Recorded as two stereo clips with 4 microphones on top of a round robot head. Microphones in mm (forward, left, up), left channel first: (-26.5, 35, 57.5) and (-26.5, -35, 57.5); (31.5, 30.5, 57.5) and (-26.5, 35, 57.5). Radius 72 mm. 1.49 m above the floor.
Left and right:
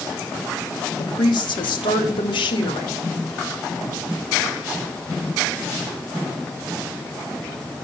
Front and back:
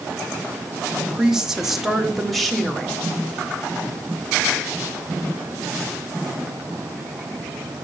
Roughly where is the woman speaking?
Left.